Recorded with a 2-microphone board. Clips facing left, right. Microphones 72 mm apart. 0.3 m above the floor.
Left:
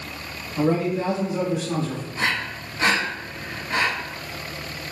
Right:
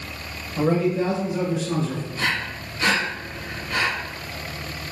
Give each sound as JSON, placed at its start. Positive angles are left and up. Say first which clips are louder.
{"t": 0.6, "sound": "a man speaking", "louder": "right 1 dB", "side_deg": -10, "distance_m": 1.0}
{"t": 2.1, "sound": "breathing", "louder": "left 2 dB", "side_deg": 25, "distance_m": 0.8}